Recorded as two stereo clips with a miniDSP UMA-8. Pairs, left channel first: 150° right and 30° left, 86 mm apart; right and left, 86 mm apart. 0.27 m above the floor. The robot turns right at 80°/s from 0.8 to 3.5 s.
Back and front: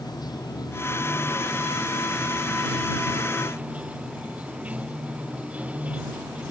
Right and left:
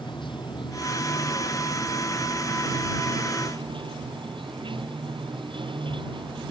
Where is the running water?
110° right; by 6.5 s 105° left.